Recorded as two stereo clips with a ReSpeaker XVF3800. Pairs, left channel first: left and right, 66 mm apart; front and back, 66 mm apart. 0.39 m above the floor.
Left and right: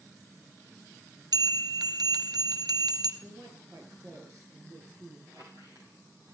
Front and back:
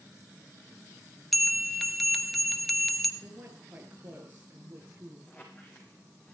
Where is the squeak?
65° right, 7 m.